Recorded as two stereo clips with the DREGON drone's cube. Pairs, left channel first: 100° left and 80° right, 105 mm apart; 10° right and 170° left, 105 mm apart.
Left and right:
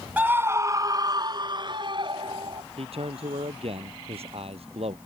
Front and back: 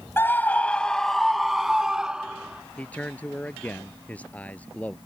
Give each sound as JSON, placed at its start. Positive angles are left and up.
{"t": 0.2, "sound": "a scream", "azimuth_deg": -35}
{"t": 2.8, "sound": "a man speaking", "azimuth_deg": -85}